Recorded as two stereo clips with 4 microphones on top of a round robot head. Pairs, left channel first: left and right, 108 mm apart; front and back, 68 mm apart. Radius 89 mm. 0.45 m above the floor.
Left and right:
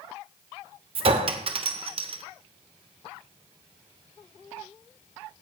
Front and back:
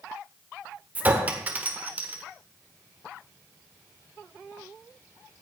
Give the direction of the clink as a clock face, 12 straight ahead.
4 o'clock.